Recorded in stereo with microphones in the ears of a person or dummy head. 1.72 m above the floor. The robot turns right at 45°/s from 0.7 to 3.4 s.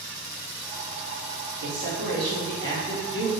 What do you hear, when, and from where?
1.6 s a man speaking: 85° right, 1.3 m; by 3.3 s 10° right, 1.3 m